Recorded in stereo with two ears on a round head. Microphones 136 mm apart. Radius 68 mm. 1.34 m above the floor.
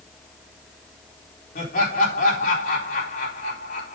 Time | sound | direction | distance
1.6 | laughter | 60° left (ahead or behind) | 4 m